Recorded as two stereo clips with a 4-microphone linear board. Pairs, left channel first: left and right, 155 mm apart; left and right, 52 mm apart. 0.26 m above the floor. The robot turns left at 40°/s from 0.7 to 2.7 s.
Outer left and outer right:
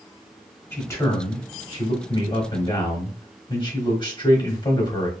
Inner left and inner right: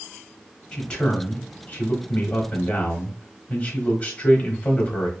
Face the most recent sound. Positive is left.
turn(degrees=70)